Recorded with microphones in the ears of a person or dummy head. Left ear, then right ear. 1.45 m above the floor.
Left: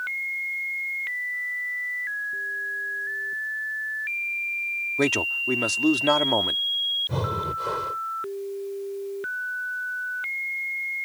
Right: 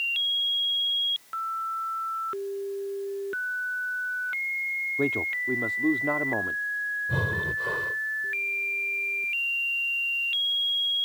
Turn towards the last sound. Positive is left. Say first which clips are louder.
# right 1 dB
turn(degrees=20)  # may be behind; listen again after turning